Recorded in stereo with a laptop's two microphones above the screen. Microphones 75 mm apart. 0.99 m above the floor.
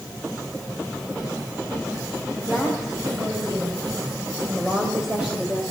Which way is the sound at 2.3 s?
10° right (ahead or behind).